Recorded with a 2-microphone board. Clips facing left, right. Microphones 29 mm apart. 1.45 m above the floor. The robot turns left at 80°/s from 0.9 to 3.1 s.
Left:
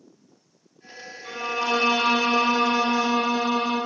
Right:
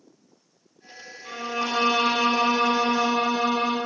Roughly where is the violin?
Centre.